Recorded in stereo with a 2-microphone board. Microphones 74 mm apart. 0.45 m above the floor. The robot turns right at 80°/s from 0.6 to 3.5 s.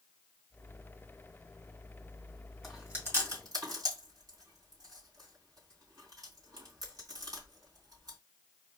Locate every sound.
2.6 s chewing: centre (ahead or behind), 3 m; by 8.2 s 65° right (ahead or behind), 3 m